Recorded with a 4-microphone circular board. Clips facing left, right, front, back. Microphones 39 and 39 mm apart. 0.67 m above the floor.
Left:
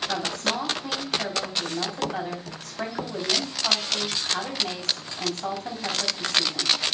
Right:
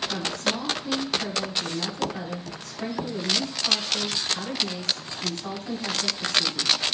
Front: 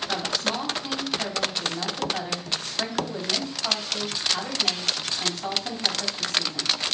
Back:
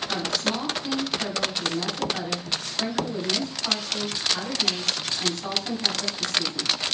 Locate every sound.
0.1 s a woman speaking: 70° left, 4 m